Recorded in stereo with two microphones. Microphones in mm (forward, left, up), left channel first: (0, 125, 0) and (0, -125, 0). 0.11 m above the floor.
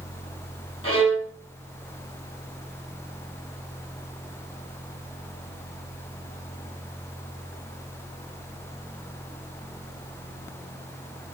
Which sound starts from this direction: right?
A violin, at 0.8 s.